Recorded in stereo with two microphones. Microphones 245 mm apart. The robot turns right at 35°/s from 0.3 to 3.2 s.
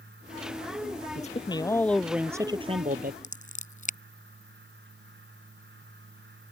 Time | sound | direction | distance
1.1 | a man speaking | 150° left | ?
3.2 | scissors | 30° left (ahead or behind) | ?